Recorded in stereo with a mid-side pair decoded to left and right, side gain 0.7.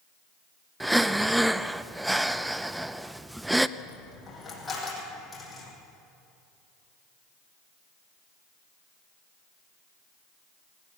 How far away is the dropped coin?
About 7 m.